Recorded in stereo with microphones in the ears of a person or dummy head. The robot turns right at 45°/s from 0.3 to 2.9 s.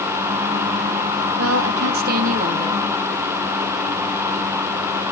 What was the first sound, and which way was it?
A woman speaking, 85° right.